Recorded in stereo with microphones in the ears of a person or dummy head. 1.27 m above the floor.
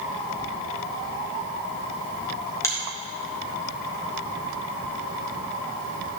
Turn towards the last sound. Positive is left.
turn(degrees=15)  # may be behind; listen again after turning